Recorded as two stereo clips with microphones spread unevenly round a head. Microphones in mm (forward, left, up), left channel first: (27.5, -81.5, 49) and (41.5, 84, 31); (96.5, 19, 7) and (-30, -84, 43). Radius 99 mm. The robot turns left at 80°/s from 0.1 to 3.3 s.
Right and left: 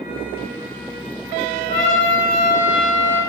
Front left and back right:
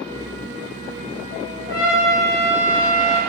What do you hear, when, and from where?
1.7 s a trumpet: 85° left, 2.0 m; by 3.2 s 35° right, 2.0 m